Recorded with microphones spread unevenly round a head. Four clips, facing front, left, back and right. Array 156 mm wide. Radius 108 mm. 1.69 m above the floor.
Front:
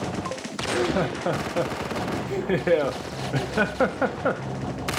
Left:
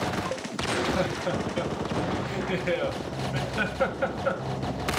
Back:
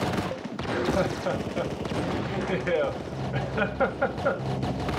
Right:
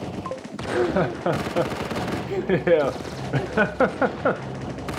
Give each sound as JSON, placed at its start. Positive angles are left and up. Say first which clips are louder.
{"t": 0.6, "sound": "laughter", "louder": "right 5 dB, front 2 dB", "azimuth_deg": -60, "distance_m": 0.8}